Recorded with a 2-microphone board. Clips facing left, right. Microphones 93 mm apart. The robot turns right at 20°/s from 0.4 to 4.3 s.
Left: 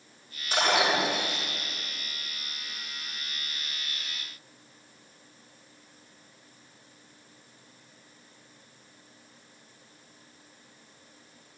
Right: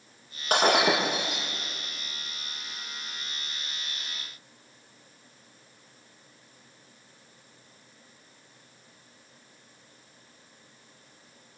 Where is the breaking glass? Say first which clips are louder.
Right 3 dB; 65° right (ahead or behind), 8 m; by 1.5 s 85° right, 8 m.